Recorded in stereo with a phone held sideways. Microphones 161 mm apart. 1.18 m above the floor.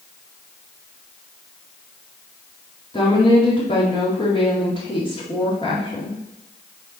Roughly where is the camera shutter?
No camera shutter in this recording.